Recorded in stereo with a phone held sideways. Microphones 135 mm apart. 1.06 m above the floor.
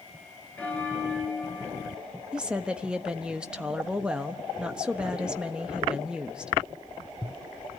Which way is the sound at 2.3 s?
5° right (ahead or behind).